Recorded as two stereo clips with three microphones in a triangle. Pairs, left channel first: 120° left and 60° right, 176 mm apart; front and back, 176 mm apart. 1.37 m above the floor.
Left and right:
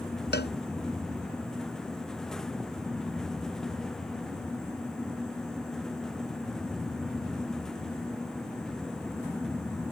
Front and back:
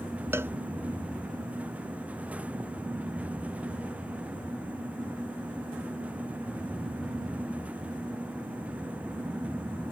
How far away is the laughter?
No laughter in this recording.